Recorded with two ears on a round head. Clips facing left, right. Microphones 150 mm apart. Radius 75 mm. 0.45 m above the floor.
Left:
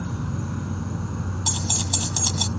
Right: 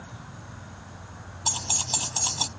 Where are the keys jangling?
10° left (ahead or behind).